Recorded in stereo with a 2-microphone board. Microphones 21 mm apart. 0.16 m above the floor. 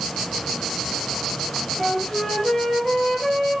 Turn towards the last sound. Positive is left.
turn(degrees=30)  # may be behind; listen again after turning